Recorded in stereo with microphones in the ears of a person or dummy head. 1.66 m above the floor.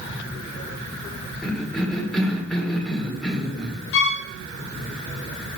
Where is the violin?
65° left (ahead or behind), 0.6 m.